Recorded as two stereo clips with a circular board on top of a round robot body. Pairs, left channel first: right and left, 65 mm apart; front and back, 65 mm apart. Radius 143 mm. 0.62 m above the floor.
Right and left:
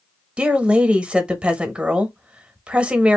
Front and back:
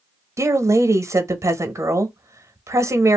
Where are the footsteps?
No footsteps in this recording.